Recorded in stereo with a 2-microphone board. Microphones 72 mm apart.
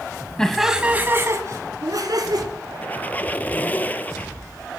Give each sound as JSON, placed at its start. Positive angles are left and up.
{"t": 0.4, "sound": "laughter", "side_deg": 10, "distance_m": 1.1}
{"t": 2.8, "sound": "a squeak", "side_deg": 25, "distance_m": 0.7}